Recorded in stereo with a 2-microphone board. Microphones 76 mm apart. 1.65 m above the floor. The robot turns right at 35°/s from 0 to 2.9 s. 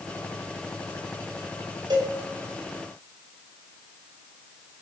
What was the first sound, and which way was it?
A cowbell, 75° right (ahead or behind).